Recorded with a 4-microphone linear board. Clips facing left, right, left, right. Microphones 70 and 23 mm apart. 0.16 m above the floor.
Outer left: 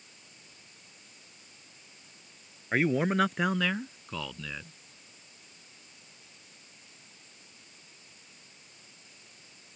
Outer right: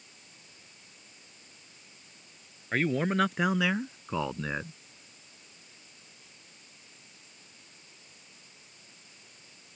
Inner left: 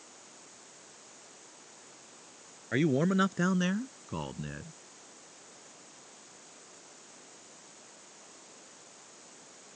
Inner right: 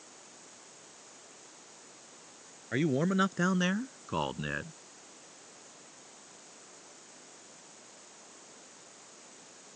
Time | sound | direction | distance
2.7 | a man speaking | 10° left (ahead or behind) | ?